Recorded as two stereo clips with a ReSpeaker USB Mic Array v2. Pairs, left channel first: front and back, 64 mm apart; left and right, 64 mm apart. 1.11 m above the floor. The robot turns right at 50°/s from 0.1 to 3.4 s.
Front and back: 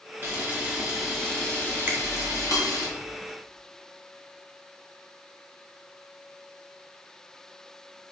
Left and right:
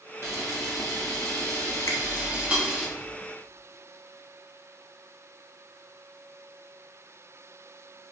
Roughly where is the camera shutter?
Behind right.